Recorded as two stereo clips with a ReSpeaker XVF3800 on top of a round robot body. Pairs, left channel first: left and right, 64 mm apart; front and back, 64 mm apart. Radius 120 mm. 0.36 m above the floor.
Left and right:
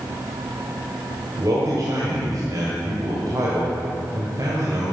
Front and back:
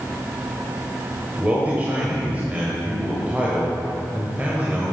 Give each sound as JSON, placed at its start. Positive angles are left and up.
{"t": 1.4, "sound": "a man speaking", "azimuth_deg": -115, "distance_m": 2.0}